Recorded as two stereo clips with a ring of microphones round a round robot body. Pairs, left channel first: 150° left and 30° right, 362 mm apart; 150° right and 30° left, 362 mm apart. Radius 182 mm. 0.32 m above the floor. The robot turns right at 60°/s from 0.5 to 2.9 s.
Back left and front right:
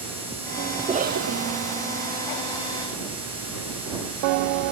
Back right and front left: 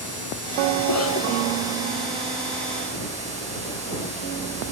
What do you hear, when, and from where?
0.8 s a cough: 110° right; by 1.8 s 55° right